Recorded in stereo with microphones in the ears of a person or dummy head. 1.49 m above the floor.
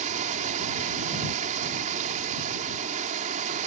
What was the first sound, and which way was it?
Running water, 40° right (ahead or behind).